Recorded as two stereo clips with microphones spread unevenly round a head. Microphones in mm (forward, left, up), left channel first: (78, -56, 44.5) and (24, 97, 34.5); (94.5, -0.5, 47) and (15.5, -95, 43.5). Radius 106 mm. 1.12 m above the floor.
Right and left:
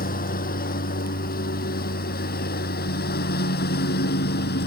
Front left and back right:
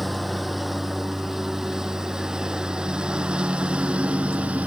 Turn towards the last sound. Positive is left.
turn(degrees=-50)